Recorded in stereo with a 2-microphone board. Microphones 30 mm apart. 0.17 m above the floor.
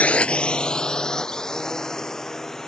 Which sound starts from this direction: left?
A drone, at 0.0 s.